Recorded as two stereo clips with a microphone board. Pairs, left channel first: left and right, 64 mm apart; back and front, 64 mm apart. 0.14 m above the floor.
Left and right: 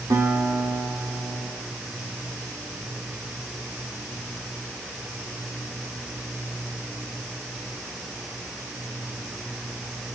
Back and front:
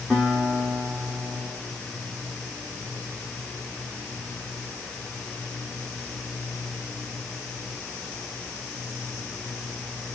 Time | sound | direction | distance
0.1 | a guitar | 80° right | 4 m